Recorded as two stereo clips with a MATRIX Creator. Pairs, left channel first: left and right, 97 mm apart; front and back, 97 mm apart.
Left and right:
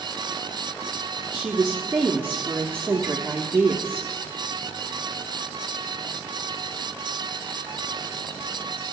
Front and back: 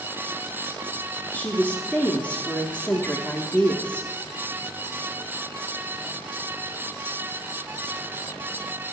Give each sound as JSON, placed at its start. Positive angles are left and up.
{"t": 1.3, "sound": "a woman speaking", "azimuth_deg": -50, "distance_m": 0.8}